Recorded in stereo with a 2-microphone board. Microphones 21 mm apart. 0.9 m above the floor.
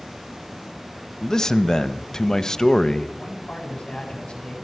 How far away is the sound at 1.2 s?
About 0.7 m.